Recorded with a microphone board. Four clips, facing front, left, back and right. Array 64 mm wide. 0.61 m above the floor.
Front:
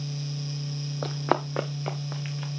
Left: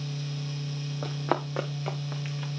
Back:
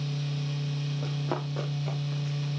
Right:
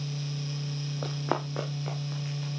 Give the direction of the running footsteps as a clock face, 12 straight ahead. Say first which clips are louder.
Left 2 dB, front 9 dB; 12 o'clock.